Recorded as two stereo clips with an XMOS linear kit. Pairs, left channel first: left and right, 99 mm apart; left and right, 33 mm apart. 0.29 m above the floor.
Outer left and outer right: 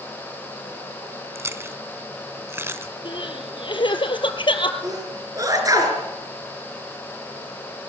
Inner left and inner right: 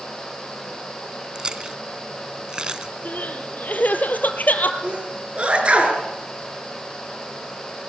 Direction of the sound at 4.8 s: 35° right (ahead or behind).